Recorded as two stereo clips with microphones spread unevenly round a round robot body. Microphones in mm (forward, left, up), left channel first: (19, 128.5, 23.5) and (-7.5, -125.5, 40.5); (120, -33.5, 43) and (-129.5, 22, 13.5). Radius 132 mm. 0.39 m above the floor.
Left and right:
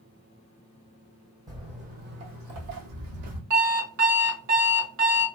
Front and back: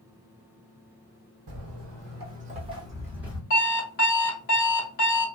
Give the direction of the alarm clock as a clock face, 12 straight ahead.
2 o'clock.